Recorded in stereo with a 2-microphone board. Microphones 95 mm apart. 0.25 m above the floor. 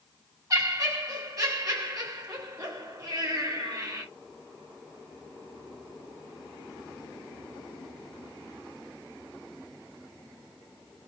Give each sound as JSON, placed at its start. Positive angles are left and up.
{"t": 0.5, "sound": "laughter", "side_deg": -40, "distance_m": 1.5}